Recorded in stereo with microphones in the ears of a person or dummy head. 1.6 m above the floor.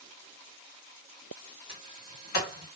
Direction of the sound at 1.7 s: 45° left (ahead or behind).